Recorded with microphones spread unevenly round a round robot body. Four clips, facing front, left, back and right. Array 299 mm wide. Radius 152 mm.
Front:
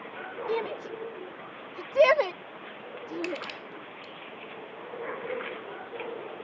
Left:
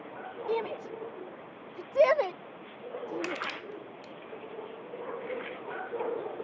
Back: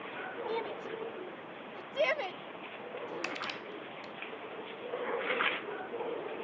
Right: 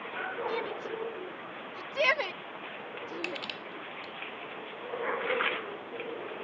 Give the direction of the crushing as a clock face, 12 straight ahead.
7 o'clock.